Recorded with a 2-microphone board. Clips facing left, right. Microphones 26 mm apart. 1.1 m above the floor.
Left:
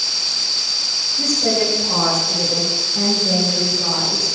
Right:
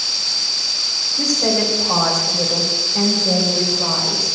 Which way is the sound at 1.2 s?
50° right (ahead or behind).